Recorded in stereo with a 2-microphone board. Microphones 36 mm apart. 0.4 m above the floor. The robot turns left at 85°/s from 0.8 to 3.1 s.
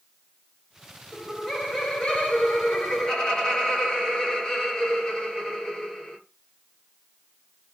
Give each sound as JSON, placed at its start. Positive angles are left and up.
{"t": 1.1, "sound": "laughter", "azimuth_deg": -150, "distance_m": 1.3}